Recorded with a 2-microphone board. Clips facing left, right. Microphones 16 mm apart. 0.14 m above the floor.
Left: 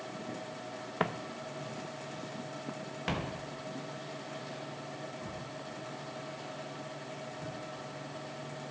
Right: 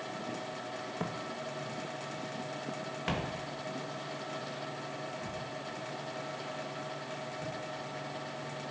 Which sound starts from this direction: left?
Footsteps, at 1.0 s.